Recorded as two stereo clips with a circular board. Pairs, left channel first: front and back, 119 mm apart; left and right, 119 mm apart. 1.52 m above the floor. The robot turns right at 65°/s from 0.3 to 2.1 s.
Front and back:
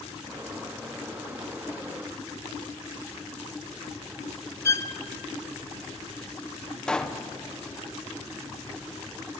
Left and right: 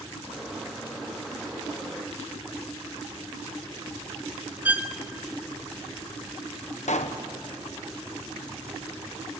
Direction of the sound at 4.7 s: 30° right.